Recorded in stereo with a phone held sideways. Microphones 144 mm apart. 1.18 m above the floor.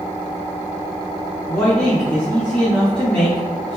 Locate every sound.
1.5 s a man speaking: 10° left (ahead or behind), 1.4 m